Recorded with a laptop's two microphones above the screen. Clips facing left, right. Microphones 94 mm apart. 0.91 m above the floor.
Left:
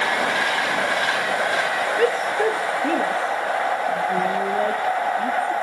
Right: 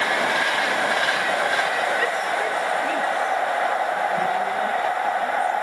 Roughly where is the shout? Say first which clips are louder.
Left 3 dB; left.